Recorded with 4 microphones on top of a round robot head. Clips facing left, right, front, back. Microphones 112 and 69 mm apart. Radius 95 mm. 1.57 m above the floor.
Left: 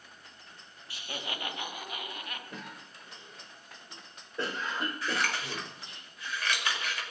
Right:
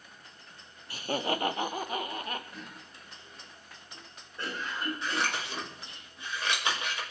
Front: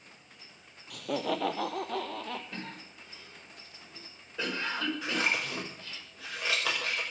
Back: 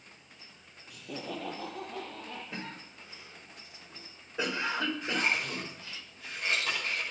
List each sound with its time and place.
0.9 s laughter: 40° right, 1.0 m; by 2.4 s 35° right, 2.5 m
2.5 s a cough: 110° left, 6 m
5.0 s scissors: 25° right, 5.5 m